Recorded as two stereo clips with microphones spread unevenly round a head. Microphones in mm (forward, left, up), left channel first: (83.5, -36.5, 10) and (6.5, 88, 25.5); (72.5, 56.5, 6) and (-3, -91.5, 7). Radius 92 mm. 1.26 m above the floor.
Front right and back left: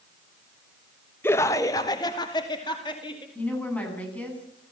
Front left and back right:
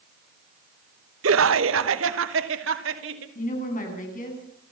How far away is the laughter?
About 0.9 m.